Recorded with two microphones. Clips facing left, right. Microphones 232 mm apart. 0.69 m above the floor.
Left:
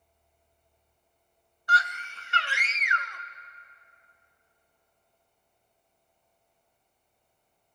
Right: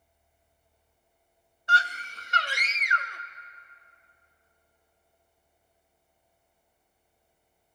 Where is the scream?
25° right (ahead or behind), 0.5 m; by 3.2 s 35° right (ahead or behind), 1.1 m.